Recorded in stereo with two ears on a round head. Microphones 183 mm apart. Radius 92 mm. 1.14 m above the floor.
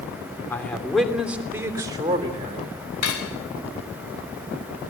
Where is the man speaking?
10° left (ahead or behind), 3 m; by 2.8 s 30° right (ahead or behind), 3.5 m.